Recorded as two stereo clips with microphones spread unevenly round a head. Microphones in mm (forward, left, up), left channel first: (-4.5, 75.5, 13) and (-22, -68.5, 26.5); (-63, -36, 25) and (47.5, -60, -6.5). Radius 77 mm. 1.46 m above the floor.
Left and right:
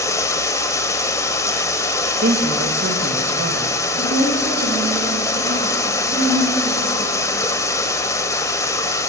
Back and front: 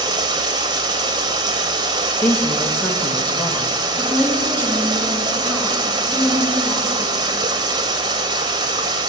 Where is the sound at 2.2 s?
120° right, 2 m.